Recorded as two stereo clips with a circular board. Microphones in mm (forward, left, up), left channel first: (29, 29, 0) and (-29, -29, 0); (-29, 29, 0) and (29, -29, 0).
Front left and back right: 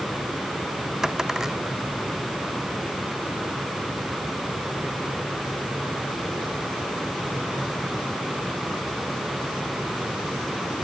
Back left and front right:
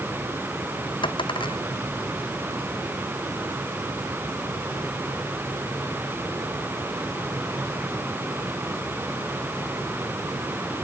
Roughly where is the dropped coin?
Behind left.